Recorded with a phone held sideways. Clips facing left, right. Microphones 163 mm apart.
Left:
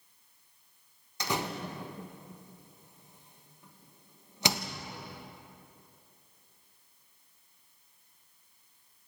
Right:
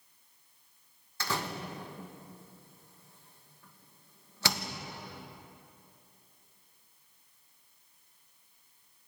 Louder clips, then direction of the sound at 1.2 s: Left 2 dB; 20° left (ahead or behind).